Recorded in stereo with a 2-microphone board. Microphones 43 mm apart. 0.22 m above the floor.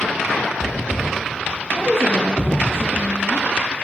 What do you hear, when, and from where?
1.8 s a woman speaking: 5° right (ahead or behind), 4.5 m; by 3.5 s 5° left (ahead or behind), 4.5 m